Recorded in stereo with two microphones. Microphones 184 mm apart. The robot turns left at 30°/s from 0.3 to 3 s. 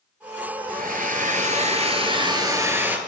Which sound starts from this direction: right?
A hair dryer, at 0.7 s.